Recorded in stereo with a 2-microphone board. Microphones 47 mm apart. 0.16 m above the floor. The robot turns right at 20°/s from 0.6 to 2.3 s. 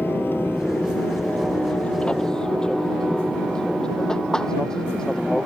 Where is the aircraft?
50° left (ahead or behind); by 5.5 s 15° left (ahead or behind).